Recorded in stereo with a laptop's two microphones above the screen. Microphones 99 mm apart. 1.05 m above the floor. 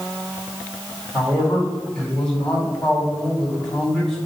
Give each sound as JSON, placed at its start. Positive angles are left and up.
{"t": 1.1, "sound": "a man speaking", "side_deg": 5, "distance_m": 4.0}